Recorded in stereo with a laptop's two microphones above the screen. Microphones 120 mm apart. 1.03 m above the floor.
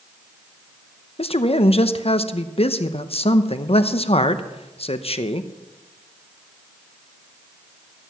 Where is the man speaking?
55° left (ahead or behind), 0.7 m.